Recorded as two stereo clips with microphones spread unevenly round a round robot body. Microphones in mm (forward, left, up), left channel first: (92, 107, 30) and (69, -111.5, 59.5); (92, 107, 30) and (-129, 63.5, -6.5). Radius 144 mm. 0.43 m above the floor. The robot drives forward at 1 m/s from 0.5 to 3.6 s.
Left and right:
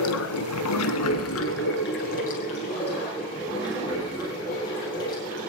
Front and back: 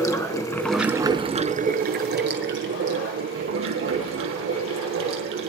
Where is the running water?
85° left, 1.1 m; by 5.5 s 160° left, 3 m.